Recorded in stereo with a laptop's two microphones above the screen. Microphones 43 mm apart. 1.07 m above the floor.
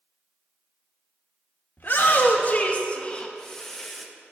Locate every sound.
1.8 s a shout: 50° left (ahead or behind), 1.6 m; by 4.1 s centre (ahead or behind), 1.2 m